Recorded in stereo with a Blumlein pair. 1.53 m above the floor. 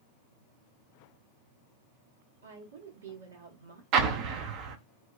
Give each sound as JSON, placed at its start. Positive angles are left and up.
{"t": 2.4, "sound": "a woman speaking", "azimuth_deg": -65, "distance_m": 1.2}
{"t": 3.9, "sound": "an explosion", "azimuth_deg": -40, "distance_m": 0.5}